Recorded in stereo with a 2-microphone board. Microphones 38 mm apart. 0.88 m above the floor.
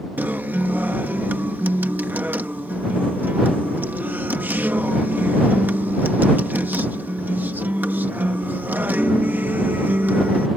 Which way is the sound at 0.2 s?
55° right (ahead or behind).